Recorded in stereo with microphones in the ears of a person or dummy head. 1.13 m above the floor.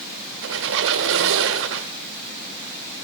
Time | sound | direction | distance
0.4 | a squeak | 65° right (ahead or behind) | 1.3 m